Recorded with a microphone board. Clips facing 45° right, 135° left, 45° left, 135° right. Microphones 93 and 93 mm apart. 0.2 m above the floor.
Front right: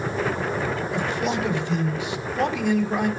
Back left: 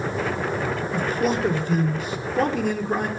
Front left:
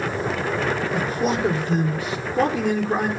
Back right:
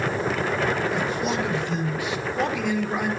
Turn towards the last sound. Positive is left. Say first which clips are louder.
# back left 4 dB, front left 2 dB
turn(degrees=95)